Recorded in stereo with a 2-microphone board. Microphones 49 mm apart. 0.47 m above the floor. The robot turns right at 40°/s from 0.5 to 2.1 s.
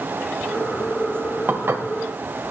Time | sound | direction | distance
1.5 | dishes clattering | 50° right (ahead or behind) | 1.3 m